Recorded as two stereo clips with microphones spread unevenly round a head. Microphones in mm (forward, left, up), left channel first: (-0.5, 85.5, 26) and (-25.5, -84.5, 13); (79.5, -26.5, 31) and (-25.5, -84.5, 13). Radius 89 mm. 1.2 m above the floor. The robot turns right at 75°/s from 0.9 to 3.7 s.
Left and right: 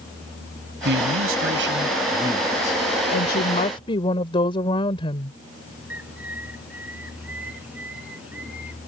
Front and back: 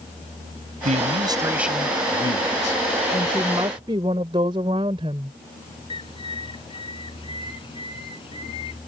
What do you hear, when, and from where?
0.8 s a man speaking: 125° right; by 2.8 s 20° left
3.1 s a woman speaking: 100° left; by 5.4 s 145° left
5.9 s a bird: 15° right